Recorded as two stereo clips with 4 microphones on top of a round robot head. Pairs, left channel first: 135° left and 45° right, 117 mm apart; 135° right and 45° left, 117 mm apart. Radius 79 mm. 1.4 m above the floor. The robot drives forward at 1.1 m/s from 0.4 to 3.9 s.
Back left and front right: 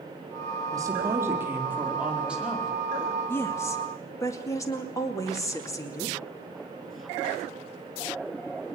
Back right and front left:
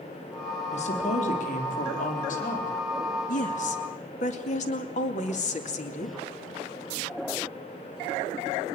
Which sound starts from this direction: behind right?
A woman speaking, at 3.3 s.